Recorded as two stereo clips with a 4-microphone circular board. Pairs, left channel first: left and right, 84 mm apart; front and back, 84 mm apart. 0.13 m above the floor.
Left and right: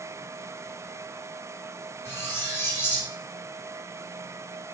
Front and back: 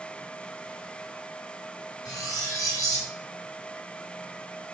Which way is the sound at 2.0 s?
35° left.